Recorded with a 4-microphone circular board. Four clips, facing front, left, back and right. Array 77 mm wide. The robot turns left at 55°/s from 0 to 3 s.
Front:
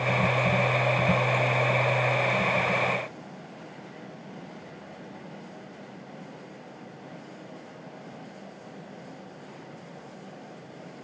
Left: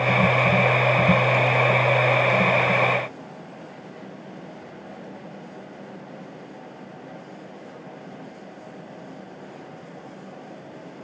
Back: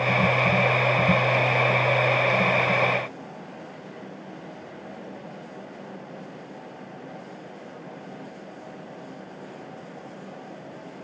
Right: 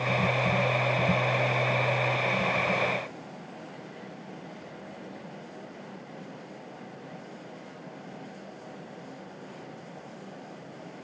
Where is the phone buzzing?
I don't hear a phone buzzing.